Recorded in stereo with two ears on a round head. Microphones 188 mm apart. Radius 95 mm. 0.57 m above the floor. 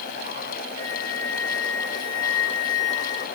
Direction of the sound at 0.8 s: 20° left (ahead or behind).